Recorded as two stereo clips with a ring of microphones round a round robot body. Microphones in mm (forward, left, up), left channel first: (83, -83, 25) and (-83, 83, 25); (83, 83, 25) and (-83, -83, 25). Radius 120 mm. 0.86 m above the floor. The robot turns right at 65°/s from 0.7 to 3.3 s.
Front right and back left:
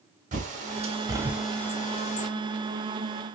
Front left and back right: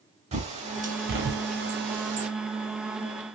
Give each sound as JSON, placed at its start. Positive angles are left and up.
{"t": 0.3, "sound": "a bird", "azimuth_deg": 175, "distance_m": 0.7}